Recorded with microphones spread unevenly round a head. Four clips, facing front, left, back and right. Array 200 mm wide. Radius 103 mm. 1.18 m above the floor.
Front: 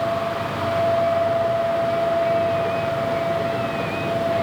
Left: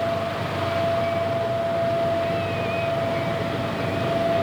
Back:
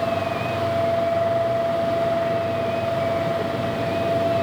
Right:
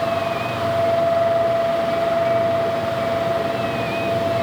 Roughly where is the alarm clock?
I don't hear an alarm clock.